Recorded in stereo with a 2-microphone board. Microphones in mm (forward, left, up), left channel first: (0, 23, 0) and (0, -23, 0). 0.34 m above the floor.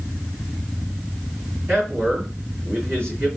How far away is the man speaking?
About 3 m.